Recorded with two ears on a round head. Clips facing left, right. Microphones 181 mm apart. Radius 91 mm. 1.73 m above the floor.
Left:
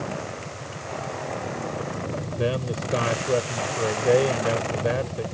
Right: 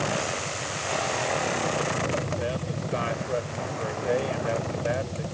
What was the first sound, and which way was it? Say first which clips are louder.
A man speaking: left 4 dB; 60° left (ahead or behind).